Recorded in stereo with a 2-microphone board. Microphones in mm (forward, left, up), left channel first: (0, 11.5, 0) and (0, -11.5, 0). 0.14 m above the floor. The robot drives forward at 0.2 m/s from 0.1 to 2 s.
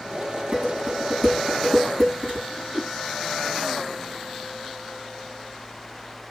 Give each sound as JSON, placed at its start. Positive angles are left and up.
{"t": 0.5, "sound": "dishes clattering", "side_deg": -60, "distance_m": 6.5}
{"t": 2.5, "sound": "a whoosh", "side_deg": -70, "distance_m": 5.5}